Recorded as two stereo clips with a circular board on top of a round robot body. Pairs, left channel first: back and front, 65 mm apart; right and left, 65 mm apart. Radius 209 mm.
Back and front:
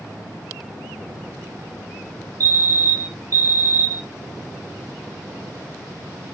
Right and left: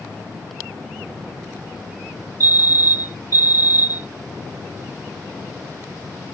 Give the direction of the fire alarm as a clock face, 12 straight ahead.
1 o'clock.